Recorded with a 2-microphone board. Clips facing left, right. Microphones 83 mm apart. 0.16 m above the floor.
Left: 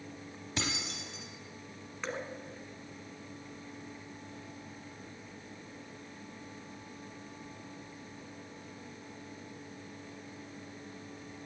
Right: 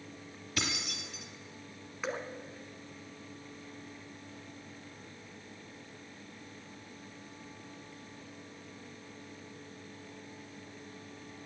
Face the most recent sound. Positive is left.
turn(degrees=-10)  # may be behind; listen again after turning